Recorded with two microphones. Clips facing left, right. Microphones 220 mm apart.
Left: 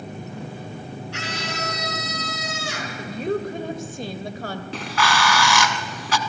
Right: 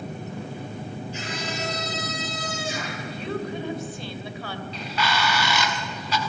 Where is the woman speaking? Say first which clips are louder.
Left 8 dB; 45° left (ahead or behind), 1.9 m.